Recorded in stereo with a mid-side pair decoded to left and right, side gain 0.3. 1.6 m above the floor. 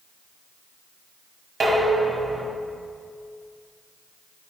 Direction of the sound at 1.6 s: 55° right.